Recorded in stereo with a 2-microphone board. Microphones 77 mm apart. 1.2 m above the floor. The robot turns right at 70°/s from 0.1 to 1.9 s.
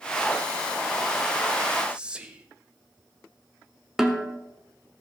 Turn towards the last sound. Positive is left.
turn(degrees=-5)  # may be behind; listen again after turning